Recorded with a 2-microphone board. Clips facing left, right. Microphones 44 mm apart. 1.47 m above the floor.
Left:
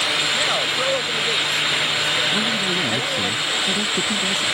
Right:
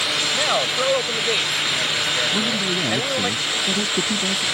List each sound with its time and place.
0.3 s a man speaking: 15° right (ahead or behind)
2.3 s a man speaking: 10° right (ahead or behind)